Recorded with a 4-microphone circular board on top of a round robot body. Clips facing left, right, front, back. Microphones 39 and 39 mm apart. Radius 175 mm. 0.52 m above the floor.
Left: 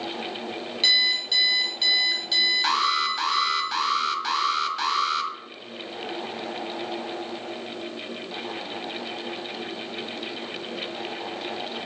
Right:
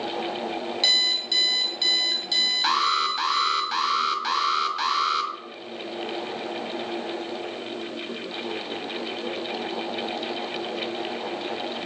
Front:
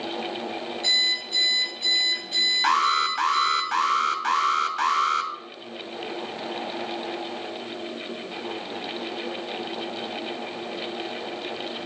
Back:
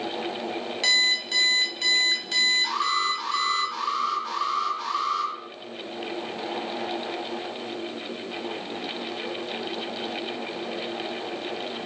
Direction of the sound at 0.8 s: 175° left.